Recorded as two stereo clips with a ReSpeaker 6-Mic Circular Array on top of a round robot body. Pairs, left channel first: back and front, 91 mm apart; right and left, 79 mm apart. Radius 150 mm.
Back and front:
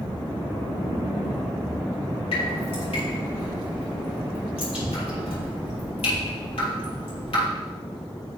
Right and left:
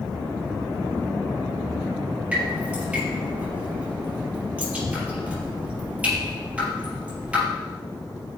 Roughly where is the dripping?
Behind.